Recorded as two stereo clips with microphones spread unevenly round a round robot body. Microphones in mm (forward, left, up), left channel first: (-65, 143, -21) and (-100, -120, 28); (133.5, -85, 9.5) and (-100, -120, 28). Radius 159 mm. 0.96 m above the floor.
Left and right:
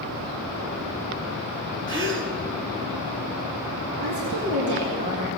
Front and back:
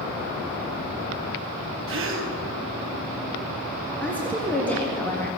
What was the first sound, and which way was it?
A gasp, 145° right.